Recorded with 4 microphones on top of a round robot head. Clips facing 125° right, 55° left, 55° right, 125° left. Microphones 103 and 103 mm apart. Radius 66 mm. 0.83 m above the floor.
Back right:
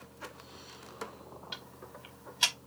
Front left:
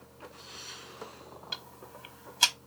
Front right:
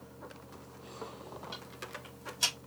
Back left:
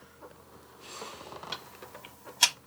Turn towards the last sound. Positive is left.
turn(degrees=105)